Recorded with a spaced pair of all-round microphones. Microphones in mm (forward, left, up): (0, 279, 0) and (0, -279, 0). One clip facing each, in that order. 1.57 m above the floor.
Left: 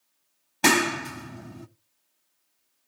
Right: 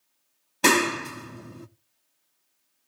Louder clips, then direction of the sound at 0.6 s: Right 1 dB; 10° left (ahead or behind).